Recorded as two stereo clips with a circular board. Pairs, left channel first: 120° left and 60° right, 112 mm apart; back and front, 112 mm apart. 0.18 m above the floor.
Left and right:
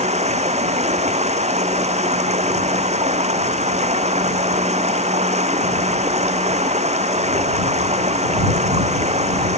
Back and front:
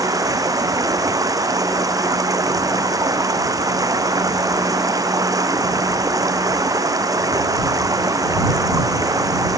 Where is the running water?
60° right.